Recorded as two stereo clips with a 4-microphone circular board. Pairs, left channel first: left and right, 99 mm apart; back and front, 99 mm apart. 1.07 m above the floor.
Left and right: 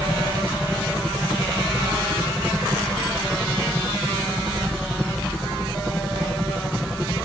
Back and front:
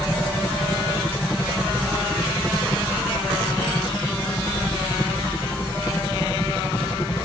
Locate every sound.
0.0 s a helicopter: 175° left